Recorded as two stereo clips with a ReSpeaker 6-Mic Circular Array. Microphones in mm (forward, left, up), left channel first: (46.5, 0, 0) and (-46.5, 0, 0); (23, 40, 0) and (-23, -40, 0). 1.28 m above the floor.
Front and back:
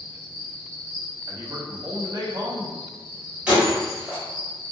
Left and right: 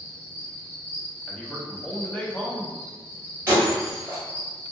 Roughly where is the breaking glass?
Behind right.